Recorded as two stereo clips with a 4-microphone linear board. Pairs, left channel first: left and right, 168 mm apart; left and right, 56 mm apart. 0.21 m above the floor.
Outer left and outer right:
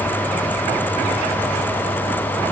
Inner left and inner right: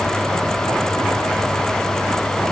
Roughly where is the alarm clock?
I don't hear an alarm clock.